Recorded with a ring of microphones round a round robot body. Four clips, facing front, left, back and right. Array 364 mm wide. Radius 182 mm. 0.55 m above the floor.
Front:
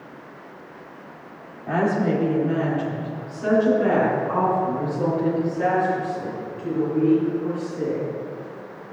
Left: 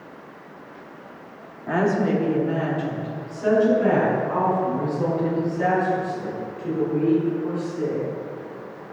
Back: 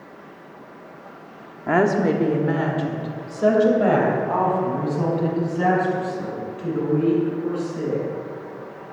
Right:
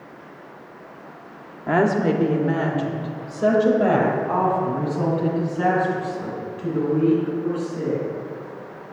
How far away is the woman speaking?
About 1.2 m.